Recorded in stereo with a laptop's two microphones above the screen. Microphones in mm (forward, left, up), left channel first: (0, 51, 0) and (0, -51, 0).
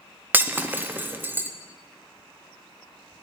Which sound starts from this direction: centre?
Breaking glass, at 0.3 s.